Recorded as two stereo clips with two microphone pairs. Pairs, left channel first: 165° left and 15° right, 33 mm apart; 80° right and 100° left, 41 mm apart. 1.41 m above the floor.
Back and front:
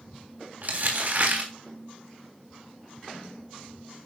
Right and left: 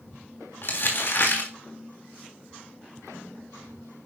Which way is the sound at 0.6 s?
50° right.